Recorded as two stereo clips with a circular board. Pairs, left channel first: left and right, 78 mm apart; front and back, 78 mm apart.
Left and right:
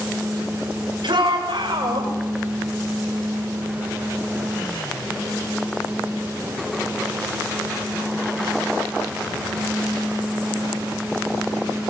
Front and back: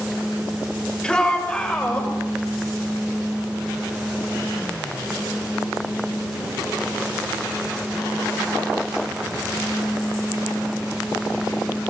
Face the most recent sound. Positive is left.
turn(degrees=-75)